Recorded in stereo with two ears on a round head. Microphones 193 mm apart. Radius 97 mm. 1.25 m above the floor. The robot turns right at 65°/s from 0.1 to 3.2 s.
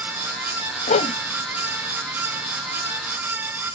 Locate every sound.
0.9 s a whoosh: 40° left (ahead or behind); by 1.2 s 20° left (ahead or behind)